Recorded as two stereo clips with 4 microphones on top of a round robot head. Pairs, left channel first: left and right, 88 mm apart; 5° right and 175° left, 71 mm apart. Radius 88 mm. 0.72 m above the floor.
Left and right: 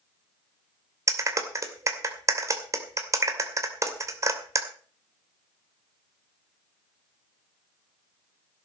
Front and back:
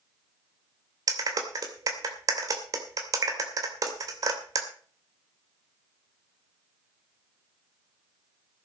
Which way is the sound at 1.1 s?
145° right.